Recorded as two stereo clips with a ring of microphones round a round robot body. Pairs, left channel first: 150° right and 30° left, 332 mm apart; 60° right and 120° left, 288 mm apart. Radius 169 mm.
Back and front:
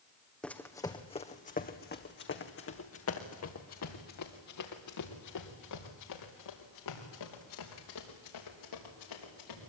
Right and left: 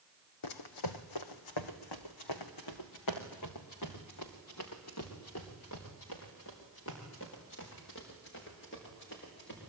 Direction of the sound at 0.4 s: 60° right.